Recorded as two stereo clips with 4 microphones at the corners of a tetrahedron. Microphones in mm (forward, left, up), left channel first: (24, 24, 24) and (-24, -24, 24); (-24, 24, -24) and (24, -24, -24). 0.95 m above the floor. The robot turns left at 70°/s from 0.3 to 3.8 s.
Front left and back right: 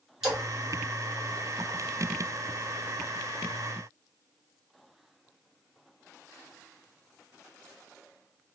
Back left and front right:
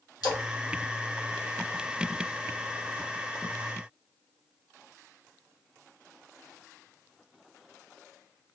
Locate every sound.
0.2 s a splash: 145° left, 1.4 m; by 0.4 s 135° left, 1.4 m